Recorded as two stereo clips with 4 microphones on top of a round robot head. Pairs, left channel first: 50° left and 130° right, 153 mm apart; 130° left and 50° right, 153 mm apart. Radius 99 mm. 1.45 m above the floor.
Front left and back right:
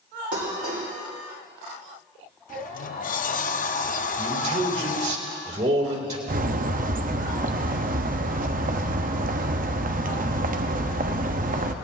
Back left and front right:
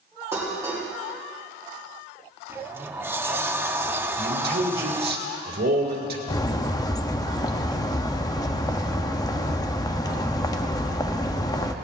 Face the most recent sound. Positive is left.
turn(degrees=-165)